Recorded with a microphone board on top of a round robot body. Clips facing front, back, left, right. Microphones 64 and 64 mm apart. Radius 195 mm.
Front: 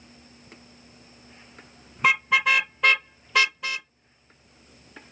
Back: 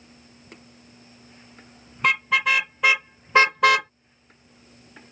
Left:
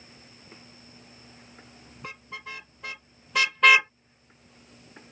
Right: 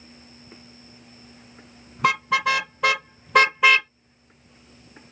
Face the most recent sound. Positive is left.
turn(degrees=145)